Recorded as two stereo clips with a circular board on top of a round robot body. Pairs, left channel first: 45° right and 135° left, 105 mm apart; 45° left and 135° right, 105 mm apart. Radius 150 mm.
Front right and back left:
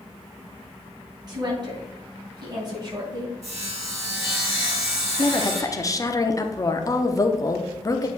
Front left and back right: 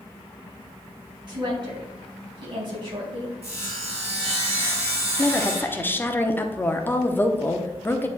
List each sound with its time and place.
1.3 s a woman speaking: straight behind, 3.5 m
3.4 s sawing: 165° right, 3 m
5.2 s a woman speaking: 15° right, 1.0 m